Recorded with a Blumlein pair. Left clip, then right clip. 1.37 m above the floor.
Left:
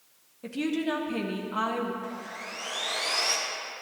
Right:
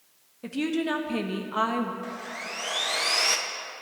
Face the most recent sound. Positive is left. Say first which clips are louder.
# right 2 dB
turn(degrees=-20)